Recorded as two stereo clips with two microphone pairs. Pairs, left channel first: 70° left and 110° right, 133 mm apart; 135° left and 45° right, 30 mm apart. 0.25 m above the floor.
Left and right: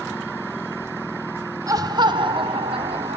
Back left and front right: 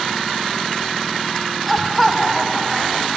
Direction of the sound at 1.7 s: 140° right.